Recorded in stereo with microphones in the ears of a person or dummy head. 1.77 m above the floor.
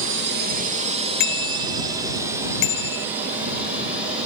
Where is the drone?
65° right (ahead or behind); by 4.3 s 5° right (ahead or behind).